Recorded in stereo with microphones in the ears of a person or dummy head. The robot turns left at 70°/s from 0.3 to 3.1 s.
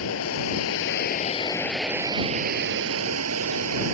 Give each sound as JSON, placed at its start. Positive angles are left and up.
{"t": 0.0, "sound": "running water", "azimuth_deg": 105}